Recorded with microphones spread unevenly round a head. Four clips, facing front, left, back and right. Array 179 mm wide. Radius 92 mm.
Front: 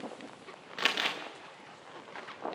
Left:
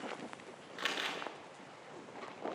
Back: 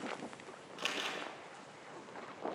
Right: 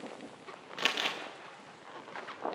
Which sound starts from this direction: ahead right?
Crumpling, at 0.8 s.